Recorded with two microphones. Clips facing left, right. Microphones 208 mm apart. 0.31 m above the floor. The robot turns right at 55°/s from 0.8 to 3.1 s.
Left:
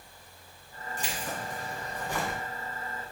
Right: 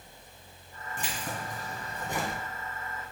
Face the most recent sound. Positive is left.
turn(degrees=30)